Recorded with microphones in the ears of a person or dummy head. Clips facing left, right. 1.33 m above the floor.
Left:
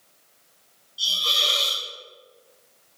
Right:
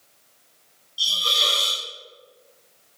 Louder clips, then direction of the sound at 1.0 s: Right 2 dB; 30° right (ahead or behind).